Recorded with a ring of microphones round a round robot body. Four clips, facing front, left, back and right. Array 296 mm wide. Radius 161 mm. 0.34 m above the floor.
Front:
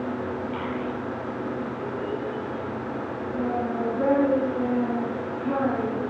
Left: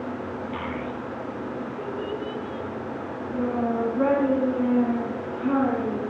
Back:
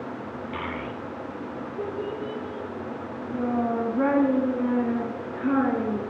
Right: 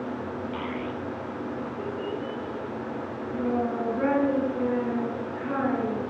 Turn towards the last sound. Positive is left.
turn(degrees=165)